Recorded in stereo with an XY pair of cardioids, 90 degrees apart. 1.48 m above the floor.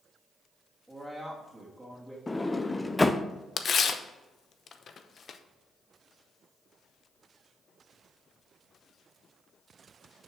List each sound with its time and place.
0.9 s a woman speaking: 15° right, 2.5 m
2.3 s a sliding door: 15° left, 0.6 m
3.6 s tearing paper: 55° left, 0.8 m